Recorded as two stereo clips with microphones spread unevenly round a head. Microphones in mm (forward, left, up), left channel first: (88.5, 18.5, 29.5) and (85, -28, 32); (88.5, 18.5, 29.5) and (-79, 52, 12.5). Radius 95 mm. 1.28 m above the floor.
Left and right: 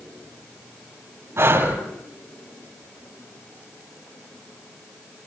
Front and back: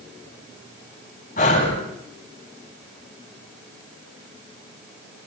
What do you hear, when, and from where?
1.4 s breathing: 65° right, 10 m